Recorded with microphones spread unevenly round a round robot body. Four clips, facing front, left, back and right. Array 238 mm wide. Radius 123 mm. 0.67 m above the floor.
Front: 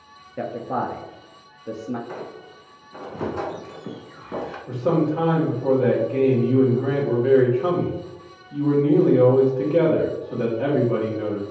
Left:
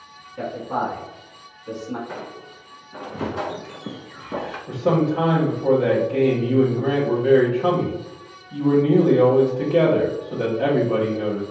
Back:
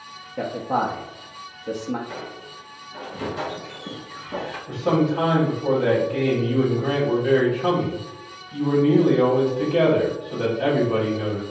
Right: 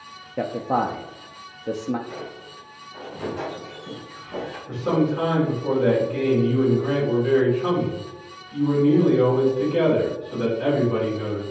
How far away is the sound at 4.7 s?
About 1.8 m.